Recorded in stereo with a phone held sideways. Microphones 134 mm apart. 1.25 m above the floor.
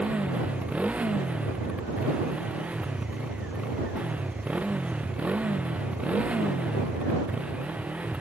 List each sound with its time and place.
0.0 s a motorcycle: 10° right (ahead or behind)